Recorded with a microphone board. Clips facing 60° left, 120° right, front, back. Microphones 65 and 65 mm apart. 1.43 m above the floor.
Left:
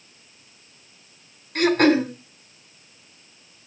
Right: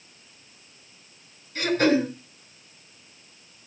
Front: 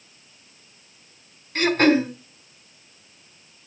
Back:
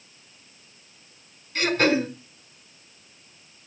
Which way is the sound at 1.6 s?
40° left.